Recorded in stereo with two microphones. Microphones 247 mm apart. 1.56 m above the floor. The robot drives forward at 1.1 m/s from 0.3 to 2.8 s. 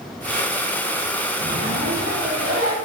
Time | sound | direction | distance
1.4 | a zipper | 70° right (ahead or behind) | 4.5 m